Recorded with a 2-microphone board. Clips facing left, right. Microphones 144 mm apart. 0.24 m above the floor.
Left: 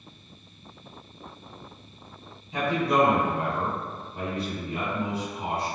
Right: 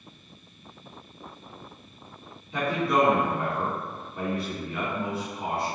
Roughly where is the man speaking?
Left.